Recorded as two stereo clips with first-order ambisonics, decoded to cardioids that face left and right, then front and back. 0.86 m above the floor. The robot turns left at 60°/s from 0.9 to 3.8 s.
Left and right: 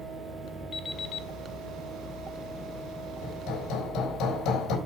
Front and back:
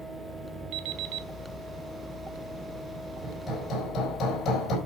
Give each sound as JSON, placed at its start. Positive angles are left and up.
{"t": 0.7, "sound": "an alarm clock", "azimuth_deg": 165, "distance_m": 1.0}
{"t": 3.2, "sound": "hammering", "azimuth_deg": 90, "distance_m": 4.0}